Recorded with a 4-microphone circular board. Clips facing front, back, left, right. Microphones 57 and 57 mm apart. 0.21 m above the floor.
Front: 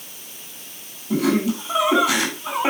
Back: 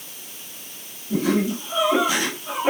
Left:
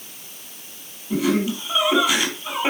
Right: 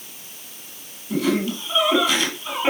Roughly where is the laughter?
Ahead.